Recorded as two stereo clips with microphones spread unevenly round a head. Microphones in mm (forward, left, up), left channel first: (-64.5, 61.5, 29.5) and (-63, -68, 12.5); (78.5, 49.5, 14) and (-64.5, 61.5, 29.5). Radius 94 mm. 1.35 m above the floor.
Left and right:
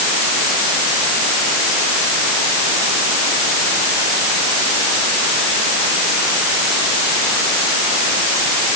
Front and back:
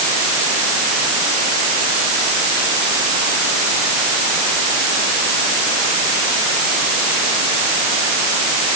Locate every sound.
Only background noise.